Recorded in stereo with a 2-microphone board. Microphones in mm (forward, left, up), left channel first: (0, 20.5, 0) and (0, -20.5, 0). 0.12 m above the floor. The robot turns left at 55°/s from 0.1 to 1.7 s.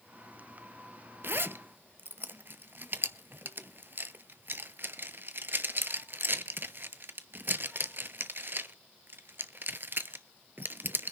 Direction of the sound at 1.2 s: 55° right (ahead or behind).